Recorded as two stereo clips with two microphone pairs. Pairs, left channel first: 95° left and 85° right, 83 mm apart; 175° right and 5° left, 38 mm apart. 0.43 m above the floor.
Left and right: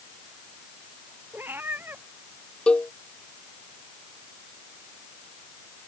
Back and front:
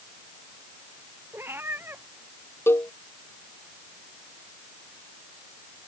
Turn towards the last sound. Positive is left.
turn(degrees=175)